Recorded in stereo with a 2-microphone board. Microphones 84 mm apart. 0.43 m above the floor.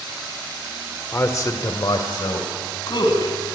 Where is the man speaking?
30° left (ahead or behind), 1.3 m; by 3.3 s 65° left (ahead or behind), 4 m.